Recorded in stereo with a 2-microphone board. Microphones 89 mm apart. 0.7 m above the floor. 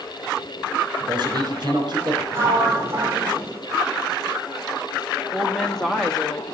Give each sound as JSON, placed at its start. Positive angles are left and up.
{"t": 1.0, "sound": "a man speaking", "side_deg": -50, "distance_m": 3.5}
{"t": 2.3, "sound": "a sliding door", "side_deg": -30, "distance_m": 3.0}
{"t": 5.3, "sound": "a woman speaking", "side_deg": 5, "distance_m": 1.0}